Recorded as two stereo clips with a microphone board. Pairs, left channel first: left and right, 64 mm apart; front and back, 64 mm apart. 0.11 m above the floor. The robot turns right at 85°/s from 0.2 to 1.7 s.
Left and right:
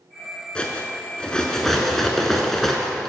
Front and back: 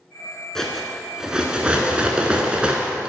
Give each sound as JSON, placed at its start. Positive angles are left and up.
{"t": 0.6, "sound": "cutlery clinking", "azimuth_deg": 65, "distance_m": 0.6}